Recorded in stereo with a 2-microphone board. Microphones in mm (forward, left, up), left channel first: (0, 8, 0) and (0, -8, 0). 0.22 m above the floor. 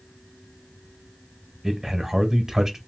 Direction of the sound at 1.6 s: 20° right (ahead or behind).